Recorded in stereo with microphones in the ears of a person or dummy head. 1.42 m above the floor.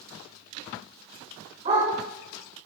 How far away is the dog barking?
About 6.5 m.